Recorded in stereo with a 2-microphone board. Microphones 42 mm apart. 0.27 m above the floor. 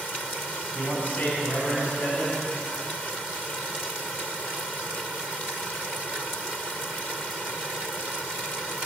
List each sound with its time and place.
0.8 s a man speaking: 45° left (ahead or behind), 2.5 m